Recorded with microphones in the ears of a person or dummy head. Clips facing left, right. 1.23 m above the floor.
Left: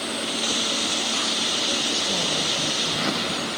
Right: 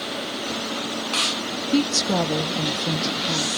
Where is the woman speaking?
85° right, 1.4 m.